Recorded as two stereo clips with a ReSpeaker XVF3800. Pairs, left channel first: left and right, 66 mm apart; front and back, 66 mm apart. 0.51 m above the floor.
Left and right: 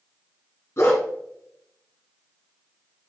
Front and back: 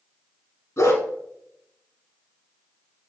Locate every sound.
0.8 s a dog barking: 40° left, 2 m